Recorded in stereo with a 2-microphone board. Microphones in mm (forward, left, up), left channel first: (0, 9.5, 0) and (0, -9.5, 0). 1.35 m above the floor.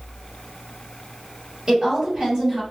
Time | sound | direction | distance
1.7 | a woman speaking | 40° right (ahead or behind) | 1.8 m